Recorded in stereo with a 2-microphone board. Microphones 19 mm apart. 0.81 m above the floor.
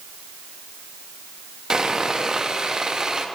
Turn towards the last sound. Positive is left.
turn(degrees=-40)  # may be behind; listen again after turning